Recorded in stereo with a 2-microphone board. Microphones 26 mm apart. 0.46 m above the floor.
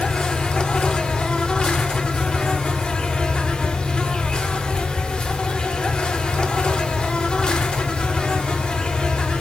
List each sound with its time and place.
0.0 s an insect: 35° left (ahead or behind), 0.8 m